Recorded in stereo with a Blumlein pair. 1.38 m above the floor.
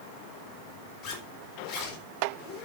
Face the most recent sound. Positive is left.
turn(degrees=35)